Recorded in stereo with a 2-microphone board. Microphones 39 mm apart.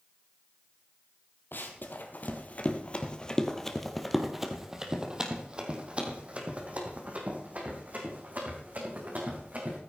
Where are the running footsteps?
60° left (ahead or behind), 2.5 m; by 9.8 s 45° right (ahead or behind), 6.5 m.